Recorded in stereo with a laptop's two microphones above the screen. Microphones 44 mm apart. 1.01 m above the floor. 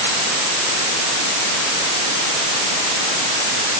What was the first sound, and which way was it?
Only background noise.